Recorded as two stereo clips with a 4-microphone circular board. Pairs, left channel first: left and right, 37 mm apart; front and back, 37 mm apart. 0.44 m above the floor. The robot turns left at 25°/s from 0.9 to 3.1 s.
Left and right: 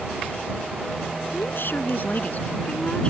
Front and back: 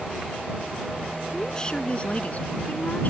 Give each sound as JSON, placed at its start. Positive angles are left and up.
{"t": 1.3, "sound": "a woman speaking", "azimuth_deg": 75}